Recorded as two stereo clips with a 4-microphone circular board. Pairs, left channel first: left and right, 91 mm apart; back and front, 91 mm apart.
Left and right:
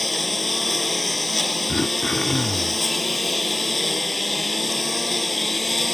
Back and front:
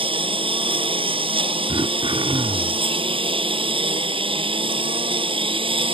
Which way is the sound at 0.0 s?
Straight ahead.